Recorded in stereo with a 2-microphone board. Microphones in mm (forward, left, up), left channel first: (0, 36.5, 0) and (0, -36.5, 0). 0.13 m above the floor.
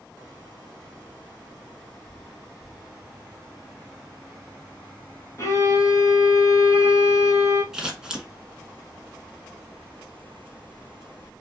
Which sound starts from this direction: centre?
Scissors, at 7.7 s.